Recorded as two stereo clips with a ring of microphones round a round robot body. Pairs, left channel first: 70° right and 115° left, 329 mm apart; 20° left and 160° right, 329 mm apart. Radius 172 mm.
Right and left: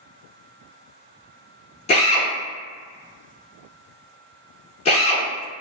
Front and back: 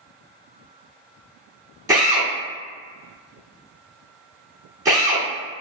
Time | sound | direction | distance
1.9 | a drill | 95° right | 1.5 m